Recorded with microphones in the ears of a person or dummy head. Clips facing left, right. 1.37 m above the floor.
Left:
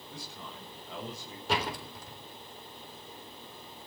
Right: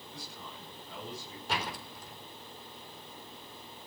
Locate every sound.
0.1 s a man speaking: 55° left (ahead or behind), 9 m; by 1.4 s 60° left (ahead or behind), 7 m
1.5 s a door slam: 65° left (ahead or behind), 4 m